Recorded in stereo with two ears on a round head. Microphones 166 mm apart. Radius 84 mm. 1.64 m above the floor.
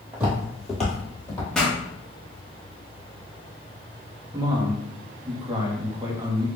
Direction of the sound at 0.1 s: 15° right (ahead or behind).